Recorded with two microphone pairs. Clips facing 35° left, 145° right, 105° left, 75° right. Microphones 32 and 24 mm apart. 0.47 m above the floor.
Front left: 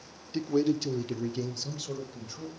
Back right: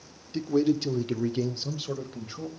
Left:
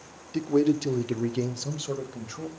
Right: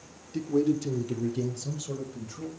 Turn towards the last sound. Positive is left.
turn(degrees=160)